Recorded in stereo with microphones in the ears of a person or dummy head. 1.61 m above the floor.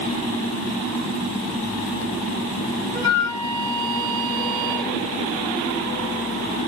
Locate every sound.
2.9 s a flute: 30° right (ahead or behind), 6.5 m